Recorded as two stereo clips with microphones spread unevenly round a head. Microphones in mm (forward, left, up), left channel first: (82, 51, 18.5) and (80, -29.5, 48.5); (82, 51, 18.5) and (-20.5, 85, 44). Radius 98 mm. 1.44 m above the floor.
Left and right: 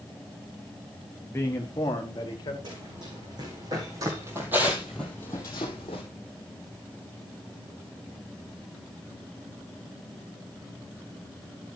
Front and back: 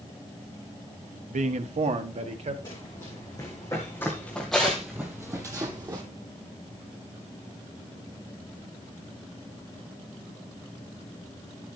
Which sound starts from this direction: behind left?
A man speaking, at 1.3 s.